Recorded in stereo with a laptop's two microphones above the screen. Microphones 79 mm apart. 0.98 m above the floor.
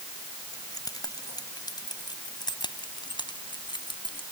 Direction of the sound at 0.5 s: 50° left (ahead or behind).